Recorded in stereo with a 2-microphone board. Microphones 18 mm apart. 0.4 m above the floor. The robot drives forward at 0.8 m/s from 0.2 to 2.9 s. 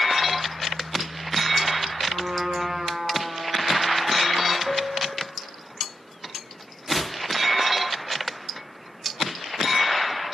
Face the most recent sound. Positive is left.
turn(degrees=-35)  # may be behind; listen again after turning